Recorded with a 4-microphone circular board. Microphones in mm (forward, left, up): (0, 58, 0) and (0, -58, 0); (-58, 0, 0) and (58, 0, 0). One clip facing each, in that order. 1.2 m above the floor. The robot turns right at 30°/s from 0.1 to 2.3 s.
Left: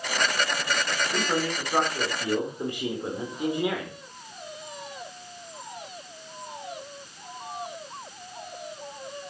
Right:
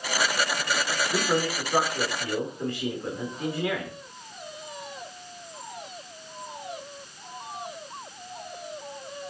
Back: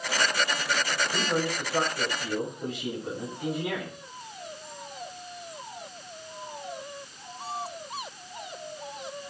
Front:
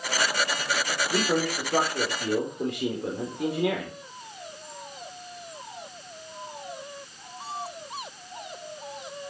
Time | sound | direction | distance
1.1 | a man speaking | 20° right | 4.5 m